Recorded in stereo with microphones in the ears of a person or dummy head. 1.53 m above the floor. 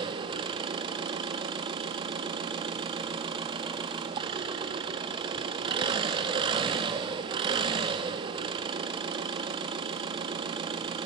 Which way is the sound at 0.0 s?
30° right (ahead or behind).